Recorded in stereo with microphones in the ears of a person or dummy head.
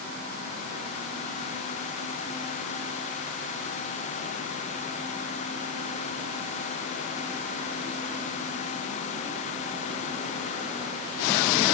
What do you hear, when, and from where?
Only background noise.